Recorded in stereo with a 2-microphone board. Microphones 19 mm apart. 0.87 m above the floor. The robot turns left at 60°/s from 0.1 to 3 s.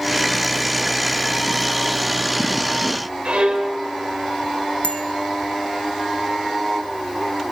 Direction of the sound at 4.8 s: 75° left (ahead or behind).